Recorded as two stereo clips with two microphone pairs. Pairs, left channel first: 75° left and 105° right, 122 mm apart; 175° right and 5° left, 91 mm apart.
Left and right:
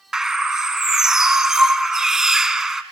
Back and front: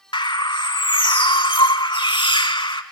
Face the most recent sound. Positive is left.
turn(degrees=170)